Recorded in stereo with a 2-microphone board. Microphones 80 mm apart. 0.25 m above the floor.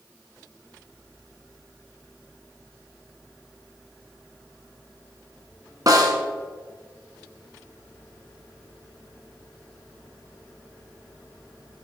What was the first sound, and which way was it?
A snare drum, 50° right (ahead or behind).